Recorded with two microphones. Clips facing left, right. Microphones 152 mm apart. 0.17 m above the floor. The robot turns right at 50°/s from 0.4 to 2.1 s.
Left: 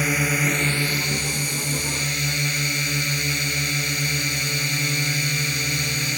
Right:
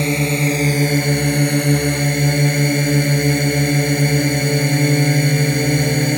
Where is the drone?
150° right; by 6.2 s 65° right.